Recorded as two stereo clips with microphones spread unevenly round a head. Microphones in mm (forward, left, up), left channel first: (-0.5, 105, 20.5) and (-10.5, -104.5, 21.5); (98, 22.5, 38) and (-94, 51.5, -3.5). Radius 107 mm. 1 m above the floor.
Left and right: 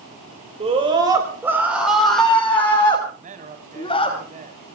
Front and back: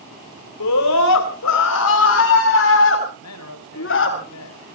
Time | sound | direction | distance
0.6 | a scream | 30° right | 4.5 m
3.1 | a man speaking | 35° right | 6 m